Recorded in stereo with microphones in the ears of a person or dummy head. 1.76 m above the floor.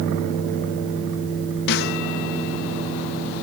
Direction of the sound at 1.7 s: 60° left (ahead or behind).